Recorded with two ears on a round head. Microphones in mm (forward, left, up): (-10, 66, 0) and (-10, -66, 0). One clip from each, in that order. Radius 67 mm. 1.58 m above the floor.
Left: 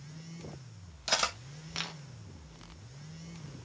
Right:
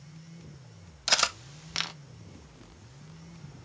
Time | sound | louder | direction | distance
1.1 | cutlery clinking | right 5 dB | 30° right (ahead or behind) | 0.8 m